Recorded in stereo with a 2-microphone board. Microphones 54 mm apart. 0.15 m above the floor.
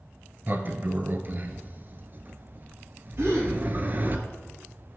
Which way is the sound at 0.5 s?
40° right (ahead or behind).